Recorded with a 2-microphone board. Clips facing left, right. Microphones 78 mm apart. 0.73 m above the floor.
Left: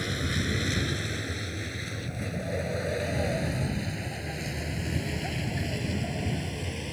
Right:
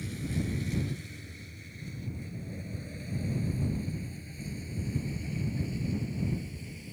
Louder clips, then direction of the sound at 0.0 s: Left 4 dB; 80° left.